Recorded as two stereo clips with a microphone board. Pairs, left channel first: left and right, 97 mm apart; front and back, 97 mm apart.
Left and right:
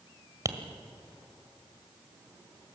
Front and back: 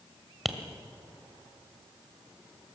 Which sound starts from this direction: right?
Tapping, at 0.5 s.